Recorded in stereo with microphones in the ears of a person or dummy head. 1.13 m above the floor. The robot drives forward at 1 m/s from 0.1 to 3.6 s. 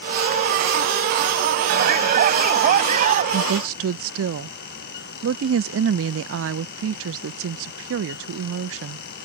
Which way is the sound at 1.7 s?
60° right (ahead or behind).